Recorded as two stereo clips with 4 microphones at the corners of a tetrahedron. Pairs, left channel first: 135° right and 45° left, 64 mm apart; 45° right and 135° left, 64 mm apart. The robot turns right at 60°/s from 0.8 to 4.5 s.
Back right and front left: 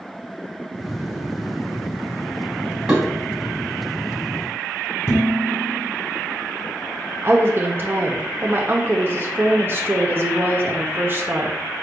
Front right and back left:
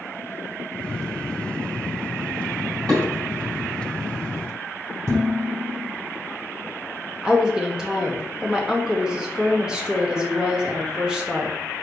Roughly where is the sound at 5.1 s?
Behind.